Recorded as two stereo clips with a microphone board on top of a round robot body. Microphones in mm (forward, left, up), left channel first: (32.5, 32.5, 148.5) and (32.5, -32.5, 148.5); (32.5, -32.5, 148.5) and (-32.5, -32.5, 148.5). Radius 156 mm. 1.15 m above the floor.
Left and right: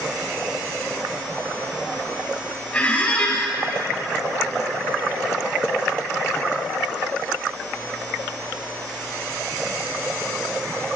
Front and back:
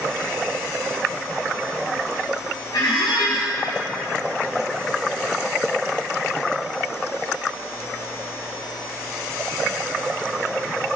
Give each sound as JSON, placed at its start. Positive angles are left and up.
{"t": 2.7, "sound": "a squeak", "azimuth_deg": 15, "distance_m": 1.8}